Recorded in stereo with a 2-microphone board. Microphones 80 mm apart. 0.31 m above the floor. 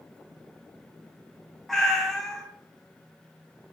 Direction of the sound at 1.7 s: 5° left (ahead or behind).